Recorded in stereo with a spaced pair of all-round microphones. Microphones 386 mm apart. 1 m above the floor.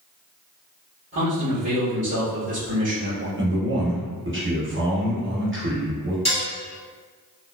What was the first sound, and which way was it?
A man speaking, 40° right (ahead or behind).